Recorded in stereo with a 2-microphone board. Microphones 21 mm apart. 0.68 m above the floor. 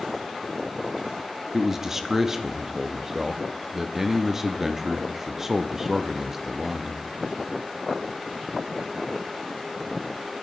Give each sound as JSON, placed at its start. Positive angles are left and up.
{"t": 1.5, "sound": "a man speaking", "side_deg": -20, "distance_m": 0.6}